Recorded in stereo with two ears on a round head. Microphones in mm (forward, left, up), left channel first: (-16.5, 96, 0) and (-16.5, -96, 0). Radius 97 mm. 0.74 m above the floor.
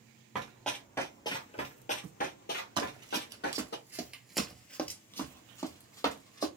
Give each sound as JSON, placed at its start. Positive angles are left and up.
{"t": 0.3, "sound": "running footsteps", "side_deg": -5, "distance_m": 0.9}
{"t": 2.8, "sound": "running footsteps", "side_deg": -20, "distance_m": 1.0}